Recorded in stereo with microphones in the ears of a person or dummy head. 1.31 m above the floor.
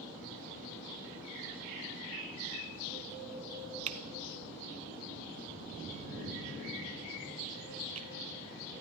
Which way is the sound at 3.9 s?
35° right (ahead or behind).